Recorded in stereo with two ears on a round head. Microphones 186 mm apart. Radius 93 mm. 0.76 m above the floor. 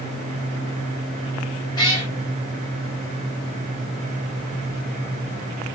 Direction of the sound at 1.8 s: 20° left (ahead or behind).